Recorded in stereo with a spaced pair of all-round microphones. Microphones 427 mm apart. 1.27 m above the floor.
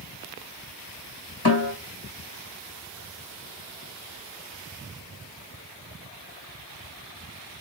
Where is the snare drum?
65° left (ahead or behind), 1.8 m.